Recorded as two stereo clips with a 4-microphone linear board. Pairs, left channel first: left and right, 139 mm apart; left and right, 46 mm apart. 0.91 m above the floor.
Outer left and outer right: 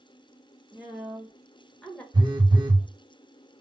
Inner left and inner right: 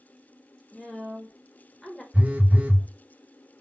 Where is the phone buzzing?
30° right (ahead or behind), 0.7 m.